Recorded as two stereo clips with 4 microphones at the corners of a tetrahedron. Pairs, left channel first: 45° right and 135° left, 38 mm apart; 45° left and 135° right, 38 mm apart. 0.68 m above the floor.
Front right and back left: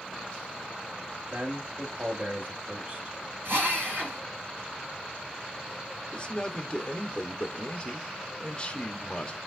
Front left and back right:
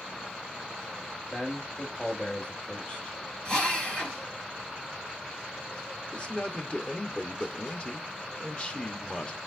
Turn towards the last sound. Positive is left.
turn(degrees=5)